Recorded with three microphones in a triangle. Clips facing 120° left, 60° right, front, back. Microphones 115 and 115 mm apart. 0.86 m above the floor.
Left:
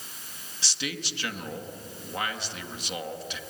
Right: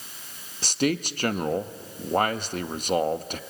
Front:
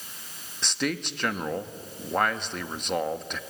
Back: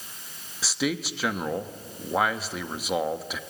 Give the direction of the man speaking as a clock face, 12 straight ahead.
3 o'clock.